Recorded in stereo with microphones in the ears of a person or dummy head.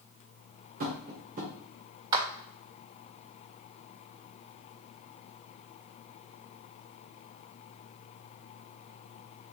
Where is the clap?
20° right (ahead or behind), 0.5 m.